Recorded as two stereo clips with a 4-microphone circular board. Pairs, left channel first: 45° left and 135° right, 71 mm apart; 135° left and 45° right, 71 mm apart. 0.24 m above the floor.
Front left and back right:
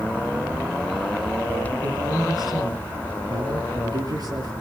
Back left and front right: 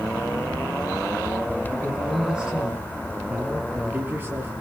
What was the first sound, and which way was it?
A man speaking, 125° right.